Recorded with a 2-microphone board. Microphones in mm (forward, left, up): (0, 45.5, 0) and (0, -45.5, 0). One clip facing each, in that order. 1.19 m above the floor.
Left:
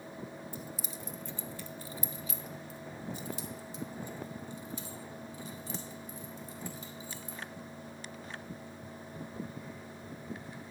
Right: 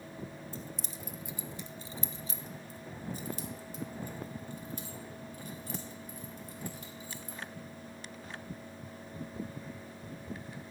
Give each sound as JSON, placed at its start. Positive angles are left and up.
{"t": 0.5, "sound": "keys jangling", "side_deg": 15, "distance_m": 0.8}